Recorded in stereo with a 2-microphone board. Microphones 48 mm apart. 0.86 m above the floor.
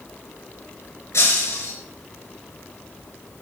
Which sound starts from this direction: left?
Breaking glass, at 1.1 s.